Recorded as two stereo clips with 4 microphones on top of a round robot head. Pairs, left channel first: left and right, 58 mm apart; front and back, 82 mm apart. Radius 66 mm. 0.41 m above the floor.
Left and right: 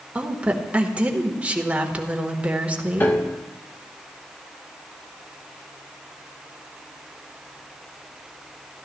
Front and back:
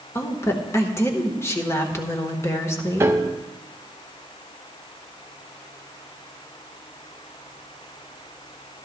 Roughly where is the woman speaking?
Ahead right.